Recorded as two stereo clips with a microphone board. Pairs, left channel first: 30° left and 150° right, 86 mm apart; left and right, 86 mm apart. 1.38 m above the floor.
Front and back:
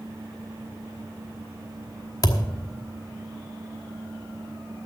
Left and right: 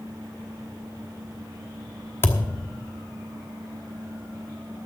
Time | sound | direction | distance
2.2 | a thud | 40° left | 1.1 m